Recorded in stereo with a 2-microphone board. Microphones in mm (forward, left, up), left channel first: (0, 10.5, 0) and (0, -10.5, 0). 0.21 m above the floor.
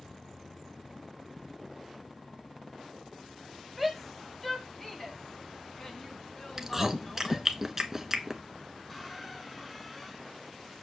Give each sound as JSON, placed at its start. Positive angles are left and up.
{"t": 3.8, "sound": "a shout", "side_deg": 5, "distance_m": 1.1}
{"t": 6.6, "sound": "chewing", "side_deg": -15, "distance_m": 0.8}
{"t": 8.9, "sound": "a squeak", "side_deg": 10, "distance_m": 0.9}